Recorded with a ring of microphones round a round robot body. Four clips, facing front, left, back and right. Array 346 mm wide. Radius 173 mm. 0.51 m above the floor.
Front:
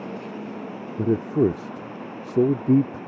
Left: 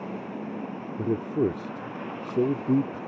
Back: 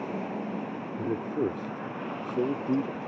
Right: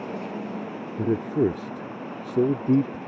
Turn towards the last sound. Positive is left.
turn(degrees=-15)